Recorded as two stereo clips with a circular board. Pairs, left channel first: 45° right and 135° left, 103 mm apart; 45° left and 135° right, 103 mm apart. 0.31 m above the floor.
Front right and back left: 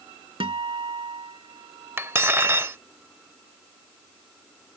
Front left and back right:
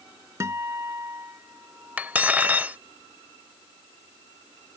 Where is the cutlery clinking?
170° left.